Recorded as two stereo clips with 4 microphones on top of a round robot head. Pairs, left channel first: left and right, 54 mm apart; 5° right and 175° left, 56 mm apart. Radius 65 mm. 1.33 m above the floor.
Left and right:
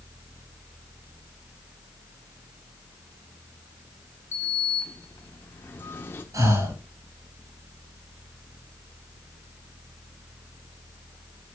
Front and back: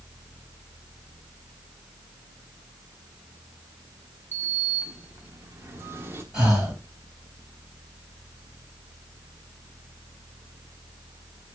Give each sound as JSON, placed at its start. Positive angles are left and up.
{"t": 4.3, "sound": "a sliding door", "azimuth_deg": 135, "distance_m": 1.3}
{"t": 6.3, "sound": "breathing", "azimuth_deg": -100, "distance_m": 7.5}